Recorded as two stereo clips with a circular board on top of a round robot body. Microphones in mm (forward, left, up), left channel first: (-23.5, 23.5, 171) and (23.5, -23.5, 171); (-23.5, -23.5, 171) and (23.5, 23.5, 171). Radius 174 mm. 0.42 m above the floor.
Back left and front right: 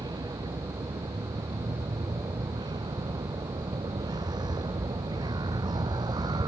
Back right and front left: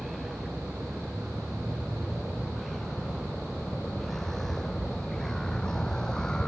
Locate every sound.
0.0 s a vehicle: 45° right; by 6.5 s 55° right